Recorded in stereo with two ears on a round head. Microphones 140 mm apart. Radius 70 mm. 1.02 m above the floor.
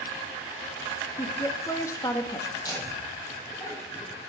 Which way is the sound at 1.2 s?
20° left (ahead or behind).